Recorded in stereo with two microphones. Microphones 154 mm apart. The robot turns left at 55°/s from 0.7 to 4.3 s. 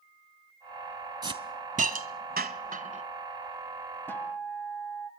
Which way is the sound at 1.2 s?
25° right (ahead or behind).